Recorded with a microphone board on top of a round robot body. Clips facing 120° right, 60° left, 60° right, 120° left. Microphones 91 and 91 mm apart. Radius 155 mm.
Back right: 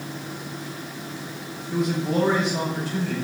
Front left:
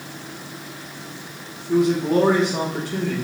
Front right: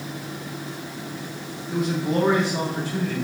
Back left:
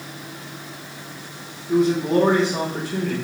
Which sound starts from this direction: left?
A man speaking, at 1.7 s.